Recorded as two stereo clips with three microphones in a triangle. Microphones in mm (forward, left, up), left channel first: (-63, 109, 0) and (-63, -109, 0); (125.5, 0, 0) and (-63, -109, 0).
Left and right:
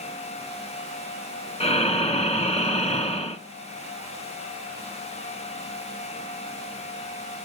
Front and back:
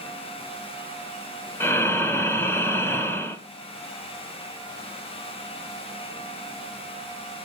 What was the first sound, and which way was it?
Breathing, 95° left.